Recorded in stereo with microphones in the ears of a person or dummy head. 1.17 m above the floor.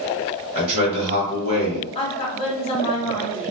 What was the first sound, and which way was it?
A man speaking, 30° right (ahead or behind).